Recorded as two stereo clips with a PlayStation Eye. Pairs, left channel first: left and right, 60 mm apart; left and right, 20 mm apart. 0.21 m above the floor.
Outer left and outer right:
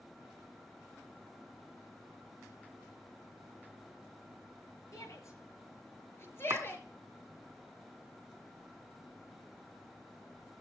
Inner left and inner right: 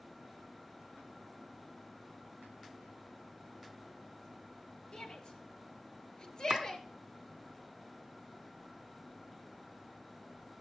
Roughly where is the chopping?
Right.